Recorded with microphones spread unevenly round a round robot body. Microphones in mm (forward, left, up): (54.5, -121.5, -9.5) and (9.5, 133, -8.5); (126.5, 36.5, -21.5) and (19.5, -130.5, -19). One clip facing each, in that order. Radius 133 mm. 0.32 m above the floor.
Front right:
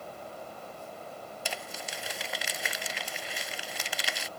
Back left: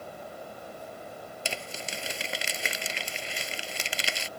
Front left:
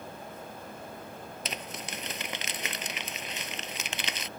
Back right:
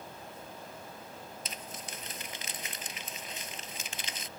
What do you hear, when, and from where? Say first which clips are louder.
1.4 s crumpling: back left 3 dB, front left 5 dB; 35° left